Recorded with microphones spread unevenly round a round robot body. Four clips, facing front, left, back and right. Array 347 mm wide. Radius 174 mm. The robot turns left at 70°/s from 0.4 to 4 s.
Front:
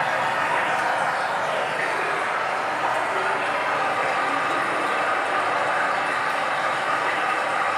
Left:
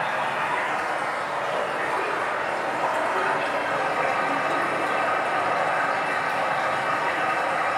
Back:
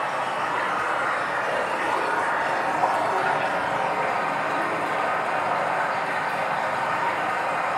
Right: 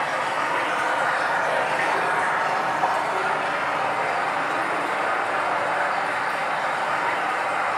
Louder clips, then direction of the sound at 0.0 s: Right 1 dB, front 3 dB; 10° left.